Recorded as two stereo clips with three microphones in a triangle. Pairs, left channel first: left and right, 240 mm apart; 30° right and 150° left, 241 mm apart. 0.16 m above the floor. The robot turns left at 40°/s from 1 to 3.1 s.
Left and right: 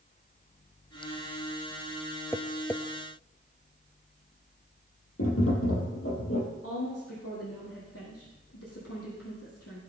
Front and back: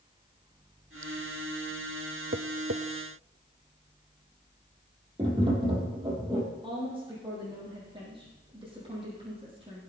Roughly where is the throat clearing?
I don't hear throat clearing.